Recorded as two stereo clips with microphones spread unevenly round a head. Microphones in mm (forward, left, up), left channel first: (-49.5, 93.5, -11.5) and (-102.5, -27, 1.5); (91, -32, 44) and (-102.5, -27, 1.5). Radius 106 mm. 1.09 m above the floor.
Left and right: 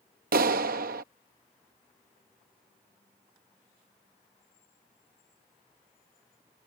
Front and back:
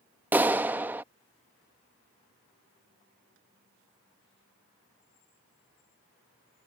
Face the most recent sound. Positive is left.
turn(degrees=-100)